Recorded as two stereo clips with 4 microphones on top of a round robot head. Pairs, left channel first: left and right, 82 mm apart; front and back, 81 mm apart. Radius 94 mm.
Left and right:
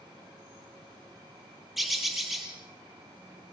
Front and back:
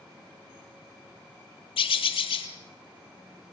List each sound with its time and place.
1.8 s a bird: straight ahead, 2.5 m